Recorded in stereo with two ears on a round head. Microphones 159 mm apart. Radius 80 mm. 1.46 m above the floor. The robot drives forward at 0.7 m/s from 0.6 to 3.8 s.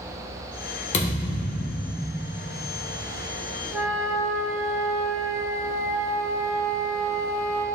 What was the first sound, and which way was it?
A thud, 40° left (ahead or behind).